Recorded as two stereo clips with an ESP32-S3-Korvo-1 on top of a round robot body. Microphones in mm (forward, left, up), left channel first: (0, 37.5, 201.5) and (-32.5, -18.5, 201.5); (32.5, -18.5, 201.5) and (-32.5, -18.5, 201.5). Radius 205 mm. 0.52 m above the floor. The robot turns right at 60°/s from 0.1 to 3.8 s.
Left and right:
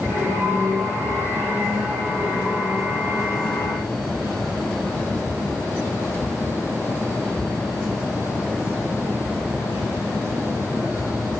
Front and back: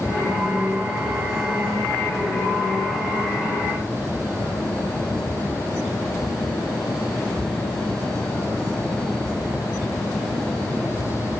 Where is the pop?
No pop in this recording.